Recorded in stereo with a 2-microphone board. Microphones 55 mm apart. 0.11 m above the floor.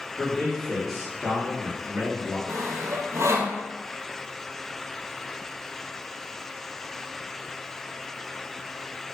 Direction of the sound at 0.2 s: 20° left (ahead or behind).